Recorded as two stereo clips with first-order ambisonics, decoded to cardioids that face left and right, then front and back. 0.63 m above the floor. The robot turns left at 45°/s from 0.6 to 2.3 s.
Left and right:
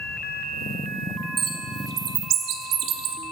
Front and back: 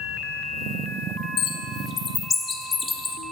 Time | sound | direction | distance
1.4 | a bird | 30° right | 0.7 m